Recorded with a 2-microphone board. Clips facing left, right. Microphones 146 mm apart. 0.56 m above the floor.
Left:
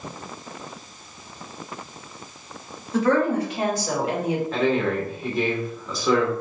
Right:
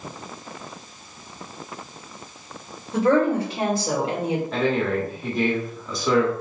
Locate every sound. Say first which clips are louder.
2.9 s a woman speaking: right 1 dB; 30° right (ahead or behind), 2.5 m
4.5 s a man speaking: left 1 dB; centre (ahead or behind), 1.2 m